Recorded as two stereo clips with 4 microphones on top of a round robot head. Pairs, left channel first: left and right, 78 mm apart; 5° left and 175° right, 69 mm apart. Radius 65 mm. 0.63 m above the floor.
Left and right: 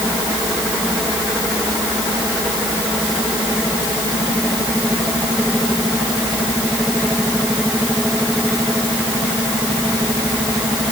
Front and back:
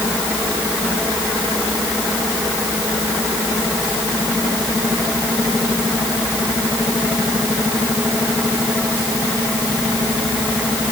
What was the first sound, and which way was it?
Only background noise.